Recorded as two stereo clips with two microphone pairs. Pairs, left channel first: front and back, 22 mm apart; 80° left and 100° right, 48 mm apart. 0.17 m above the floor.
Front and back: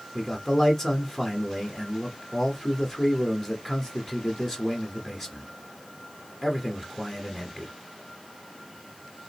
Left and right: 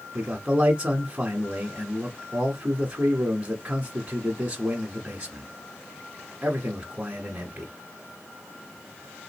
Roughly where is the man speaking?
Ahead right.